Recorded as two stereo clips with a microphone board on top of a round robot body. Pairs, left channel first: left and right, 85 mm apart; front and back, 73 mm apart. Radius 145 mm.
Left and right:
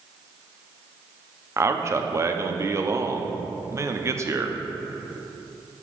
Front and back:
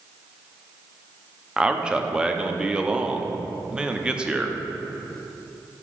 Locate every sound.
1.6 s a man speaking: 110° right, 0.9 m